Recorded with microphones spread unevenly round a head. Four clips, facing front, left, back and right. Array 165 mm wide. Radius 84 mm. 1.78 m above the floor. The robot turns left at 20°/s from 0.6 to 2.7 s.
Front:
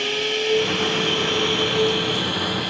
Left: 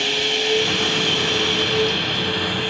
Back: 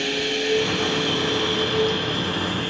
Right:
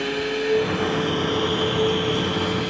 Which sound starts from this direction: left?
Running water, at 0.0 s.